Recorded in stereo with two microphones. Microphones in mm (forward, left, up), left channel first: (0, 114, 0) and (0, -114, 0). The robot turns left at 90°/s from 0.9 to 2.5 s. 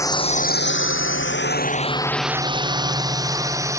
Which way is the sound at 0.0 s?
15° left (ahead or behind).